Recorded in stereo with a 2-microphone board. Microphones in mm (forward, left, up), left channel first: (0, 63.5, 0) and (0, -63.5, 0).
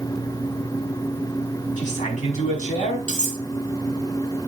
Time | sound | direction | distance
1.8 | a man speaking | 80° left | 5 m
3.1 | cutlery clinking | 80° left | 3.5 m